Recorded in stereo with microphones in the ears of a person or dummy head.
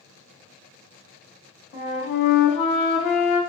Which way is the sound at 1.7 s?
45° left (ahead or behind).